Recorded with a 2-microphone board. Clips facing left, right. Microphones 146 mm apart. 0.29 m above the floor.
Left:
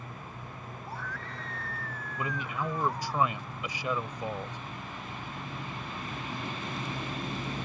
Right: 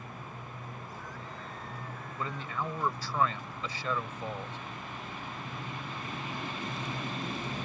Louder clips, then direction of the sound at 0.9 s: Left 3 dB; 75° left (ahead or behind).